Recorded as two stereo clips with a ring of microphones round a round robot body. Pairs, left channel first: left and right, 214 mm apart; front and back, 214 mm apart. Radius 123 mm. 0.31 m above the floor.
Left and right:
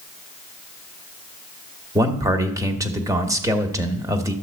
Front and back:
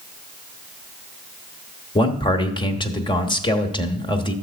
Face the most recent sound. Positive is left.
turn(degrees=-35)